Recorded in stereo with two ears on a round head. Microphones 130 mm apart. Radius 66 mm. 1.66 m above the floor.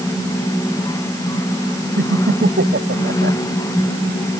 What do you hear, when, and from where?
2.0 s laughter: 80° right; by 3.4 s 75° right (ahead or behind)